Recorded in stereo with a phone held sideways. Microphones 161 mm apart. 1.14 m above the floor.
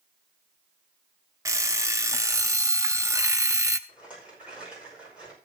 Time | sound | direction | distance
1.4 | an alarm clock | 20° right (ahead or behind) | 0.6 m
3.9 | a rattle | 5° right (ahead or behind) | 5 m